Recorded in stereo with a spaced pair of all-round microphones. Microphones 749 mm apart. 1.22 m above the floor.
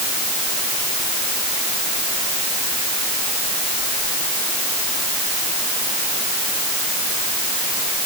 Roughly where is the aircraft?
No aircraft in this recording.